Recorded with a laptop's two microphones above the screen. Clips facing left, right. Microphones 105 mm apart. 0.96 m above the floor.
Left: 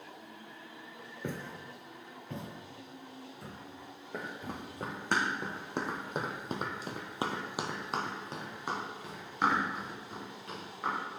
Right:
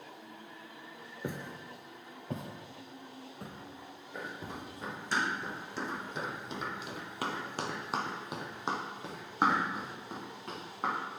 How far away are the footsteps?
About 0.9 m.